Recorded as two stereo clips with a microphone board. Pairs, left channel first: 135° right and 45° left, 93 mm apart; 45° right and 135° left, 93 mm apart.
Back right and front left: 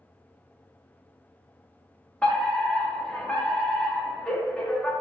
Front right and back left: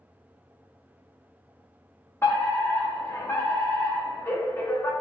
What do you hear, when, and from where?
2.2 s a fire alarm: 65° right, 1.7 m